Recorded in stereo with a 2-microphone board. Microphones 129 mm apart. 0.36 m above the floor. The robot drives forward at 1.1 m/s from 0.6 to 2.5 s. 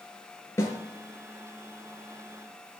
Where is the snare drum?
25° left (ahead or behind), 3 m.